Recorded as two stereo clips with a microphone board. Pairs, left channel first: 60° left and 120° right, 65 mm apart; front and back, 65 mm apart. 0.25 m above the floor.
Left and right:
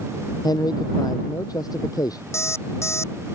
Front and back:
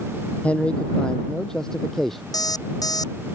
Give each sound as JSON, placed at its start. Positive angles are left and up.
{"t": 0.4, "sound": "a man speaking", "azimuth_deg": 70}
{"t": 2.3, "sound": "an alarm clock", "azimuth_deg": 15}